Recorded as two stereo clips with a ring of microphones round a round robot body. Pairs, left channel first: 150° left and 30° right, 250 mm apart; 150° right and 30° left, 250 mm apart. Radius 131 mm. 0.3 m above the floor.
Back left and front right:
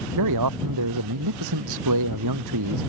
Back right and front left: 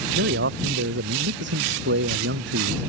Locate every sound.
0.1 s a man speaking: 20° right